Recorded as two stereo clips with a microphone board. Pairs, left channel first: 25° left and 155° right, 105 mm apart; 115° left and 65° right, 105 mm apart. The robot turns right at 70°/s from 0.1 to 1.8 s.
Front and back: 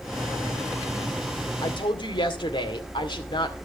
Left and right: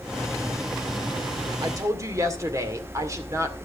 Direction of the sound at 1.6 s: 25° right.